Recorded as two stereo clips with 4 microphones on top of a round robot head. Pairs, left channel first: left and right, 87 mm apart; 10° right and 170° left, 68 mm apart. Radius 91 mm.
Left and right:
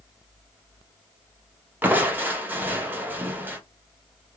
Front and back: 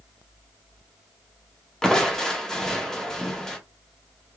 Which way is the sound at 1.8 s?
80° right.